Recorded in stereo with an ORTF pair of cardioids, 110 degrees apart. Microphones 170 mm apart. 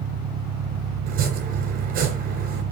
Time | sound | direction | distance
0.0 | an engine running | 65° right | 1.3 m
1.1 | chopping | 65° right | 3 m